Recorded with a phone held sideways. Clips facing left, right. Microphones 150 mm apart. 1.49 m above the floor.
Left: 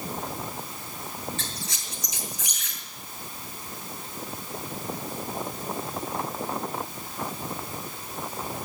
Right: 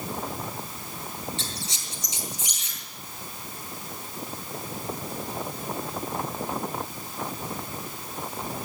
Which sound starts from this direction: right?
A squeak, at 1.4 s.